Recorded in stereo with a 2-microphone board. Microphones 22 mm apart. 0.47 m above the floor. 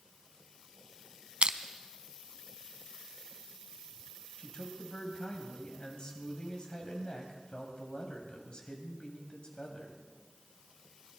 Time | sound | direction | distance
1.4 | crushing | 55° right (ahead or behind) | 0.6 m
4.4 | a man speaking | 40° left (ahead or behind) | 2.5 m